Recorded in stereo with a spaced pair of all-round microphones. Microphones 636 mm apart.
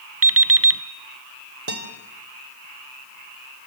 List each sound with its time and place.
0.2 s an alarm clock: 20° right (ahead or behind), 0.9 m
1.7 s a guitar: 60° right (ahead or behind), 2.5 m